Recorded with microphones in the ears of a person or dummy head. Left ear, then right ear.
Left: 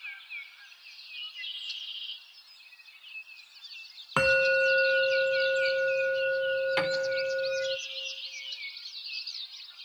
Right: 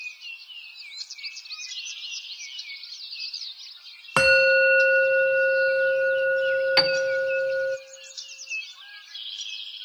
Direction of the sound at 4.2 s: 20° right (ahead or behind).